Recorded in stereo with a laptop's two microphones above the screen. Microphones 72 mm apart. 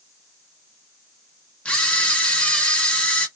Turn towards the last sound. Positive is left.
turn(degrees=15)  # may be behind; listen again after turning